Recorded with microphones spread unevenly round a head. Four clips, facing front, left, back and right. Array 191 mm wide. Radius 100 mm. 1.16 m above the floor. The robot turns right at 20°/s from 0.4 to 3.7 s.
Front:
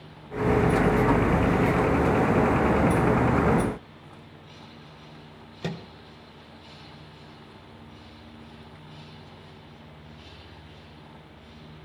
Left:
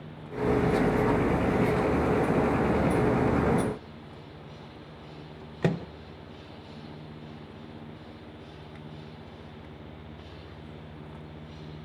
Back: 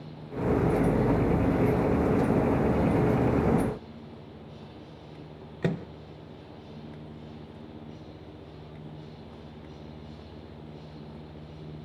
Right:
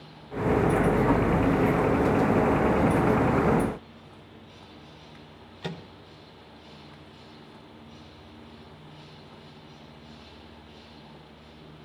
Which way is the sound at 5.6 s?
115° left.